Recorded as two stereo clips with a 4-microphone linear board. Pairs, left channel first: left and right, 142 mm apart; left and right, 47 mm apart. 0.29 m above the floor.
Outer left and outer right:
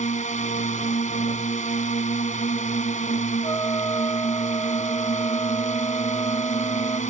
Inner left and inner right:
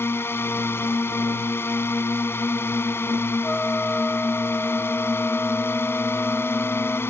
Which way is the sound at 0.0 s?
60° left (ahead or behind).